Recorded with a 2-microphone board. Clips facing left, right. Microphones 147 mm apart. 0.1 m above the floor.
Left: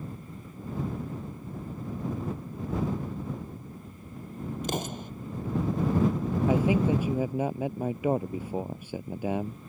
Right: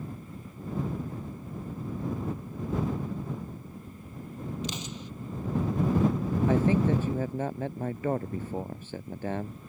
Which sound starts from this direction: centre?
A man speaking, at 6.5 s.